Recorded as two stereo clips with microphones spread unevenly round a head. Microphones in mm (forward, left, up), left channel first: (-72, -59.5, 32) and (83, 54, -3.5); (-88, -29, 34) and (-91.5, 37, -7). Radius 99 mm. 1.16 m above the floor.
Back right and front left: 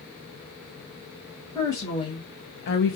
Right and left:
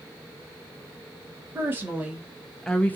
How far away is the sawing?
I don't hear sawing.